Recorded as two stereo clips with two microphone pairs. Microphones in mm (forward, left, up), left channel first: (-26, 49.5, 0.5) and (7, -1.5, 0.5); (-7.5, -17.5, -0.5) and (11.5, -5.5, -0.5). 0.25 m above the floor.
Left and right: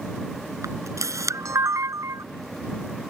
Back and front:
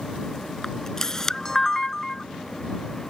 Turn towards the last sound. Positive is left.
turn(degrees=-85)